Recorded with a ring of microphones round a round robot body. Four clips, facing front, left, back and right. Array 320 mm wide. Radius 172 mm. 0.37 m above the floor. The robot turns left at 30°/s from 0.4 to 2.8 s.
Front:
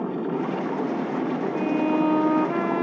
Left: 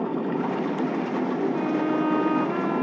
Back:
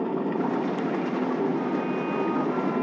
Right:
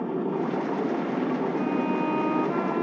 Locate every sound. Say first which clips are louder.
1.5 s a violin: left 2 dB, front 4 dB; 40° left; by 2.8 s straight ahead